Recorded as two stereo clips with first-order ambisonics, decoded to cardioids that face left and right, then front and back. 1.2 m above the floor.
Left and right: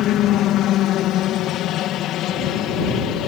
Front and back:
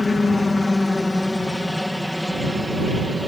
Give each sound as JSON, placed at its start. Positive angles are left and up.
{"t": 0.0, "sound": "a helicopter", "azimuth_deg": 75}